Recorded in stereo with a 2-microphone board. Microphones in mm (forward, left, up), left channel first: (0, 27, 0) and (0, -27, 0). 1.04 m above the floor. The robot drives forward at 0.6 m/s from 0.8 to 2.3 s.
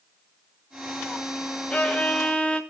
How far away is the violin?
About 3 m.